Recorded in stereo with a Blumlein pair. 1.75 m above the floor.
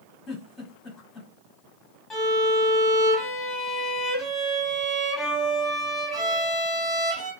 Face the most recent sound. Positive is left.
turn(degrees=20)